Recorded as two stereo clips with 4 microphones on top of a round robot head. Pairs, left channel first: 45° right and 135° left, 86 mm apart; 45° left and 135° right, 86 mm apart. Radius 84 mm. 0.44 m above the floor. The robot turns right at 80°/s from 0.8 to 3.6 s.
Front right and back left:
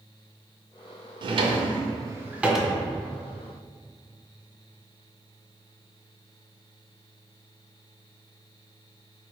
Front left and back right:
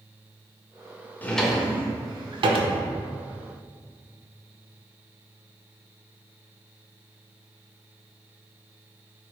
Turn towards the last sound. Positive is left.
turn(degrees=-55)